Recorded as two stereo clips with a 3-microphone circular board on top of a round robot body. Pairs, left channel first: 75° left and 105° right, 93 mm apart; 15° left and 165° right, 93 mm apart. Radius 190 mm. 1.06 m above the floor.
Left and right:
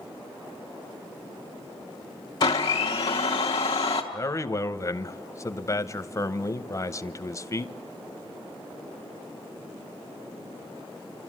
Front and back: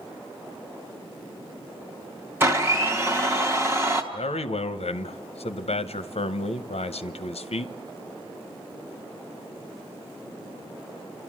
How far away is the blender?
About 0.8 m.